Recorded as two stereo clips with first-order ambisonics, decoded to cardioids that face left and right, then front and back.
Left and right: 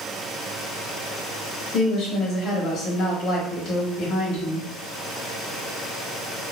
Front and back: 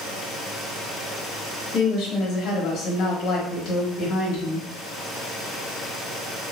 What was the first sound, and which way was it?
A woman speaking, 40° left.